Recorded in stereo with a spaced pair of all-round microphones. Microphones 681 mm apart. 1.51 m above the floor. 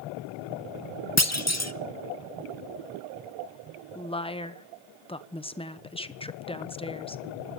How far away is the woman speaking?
About 1.1 m.